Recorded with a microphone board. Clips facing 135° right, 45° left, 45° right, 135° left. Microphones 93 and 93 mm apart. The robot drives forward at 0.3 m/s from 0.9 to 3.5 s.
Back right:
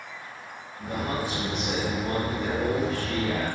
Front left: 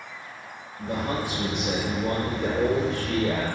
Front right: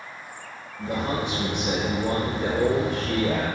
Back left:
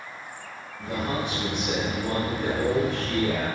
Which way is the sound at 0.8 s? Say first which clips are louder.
Front left 2 dB, front right 2 dB; 5° right.